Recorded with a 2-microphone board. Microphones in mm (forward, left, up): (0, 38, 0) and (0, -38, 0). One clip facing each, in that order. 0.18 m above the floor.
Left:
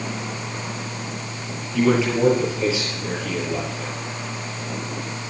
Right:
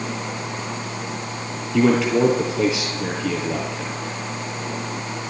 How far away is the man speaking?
About 3.5 m.